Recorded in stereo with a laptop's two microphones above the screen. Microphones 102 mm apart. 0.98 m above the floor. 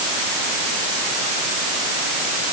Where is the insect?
No insect in this recording.